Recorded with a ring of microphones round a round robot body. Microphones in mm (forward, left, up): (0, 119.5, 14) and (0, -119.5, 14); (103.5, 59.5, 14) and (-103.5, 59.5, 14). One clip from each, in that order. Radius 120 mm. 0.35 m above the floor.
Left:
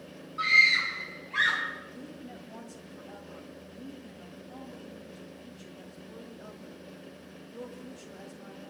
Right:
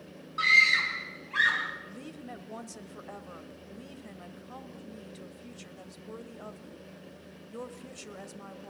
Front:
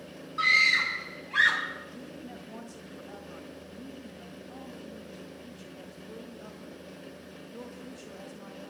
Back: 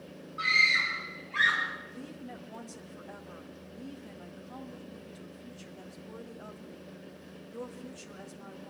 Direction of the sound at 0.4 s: 40° right.